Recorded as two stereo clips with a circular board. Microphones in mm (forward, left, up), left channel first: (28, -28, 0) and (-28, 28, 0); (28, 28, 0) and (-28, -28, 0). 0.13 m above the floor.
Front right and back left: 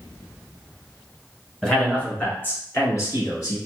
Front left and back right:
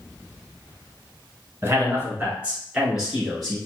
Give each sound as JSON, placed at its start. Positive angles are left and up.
{"t": 1.6, "sound": "a man speaking", "azimuth_deg": -120, "distance_m": 1.4}